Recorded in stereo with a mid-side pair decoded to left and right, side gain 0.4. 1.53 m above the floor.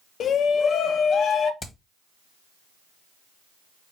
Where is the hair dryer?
No hair dryer in this recording.